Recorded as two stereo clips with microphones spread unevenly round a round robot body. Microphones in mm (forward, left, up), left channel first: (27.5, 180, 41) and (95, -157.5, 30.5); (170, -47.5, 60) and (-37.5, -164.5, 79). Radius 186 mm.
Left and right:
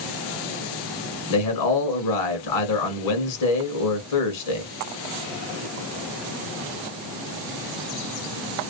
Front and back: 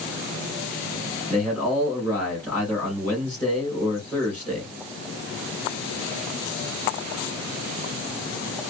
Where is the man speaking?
110° left, 1.9 m.